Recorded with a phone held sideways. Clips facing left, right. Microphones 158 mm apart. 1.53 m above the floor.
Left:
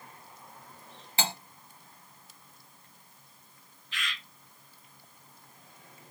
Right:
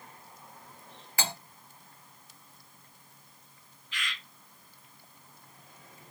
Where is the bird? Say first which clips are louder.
Left 1 dB; 5° left (ahead or behind), 1.9 m.